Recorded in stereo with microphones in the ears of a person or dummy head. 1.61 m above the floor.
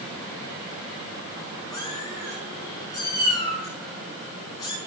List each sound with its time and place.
1.7 s a cat meowing: 25° left (ahead or behind), 6 m